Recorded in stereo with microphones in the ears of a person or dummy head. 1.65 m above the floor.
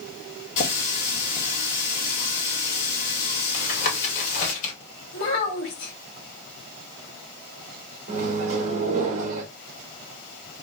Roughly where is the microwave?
Right.